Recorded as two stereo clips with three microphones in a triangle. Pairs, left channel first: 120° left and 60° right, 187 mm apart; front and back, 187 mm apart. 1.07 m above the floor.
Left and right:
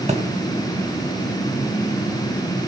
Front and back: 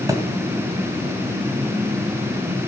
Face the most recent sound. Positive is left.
turn(degrees=-110)